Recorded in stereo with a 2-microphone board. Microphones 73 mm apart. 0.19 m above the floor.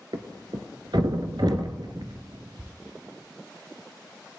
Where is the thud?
70° right (ahead or behind), 1.0 m.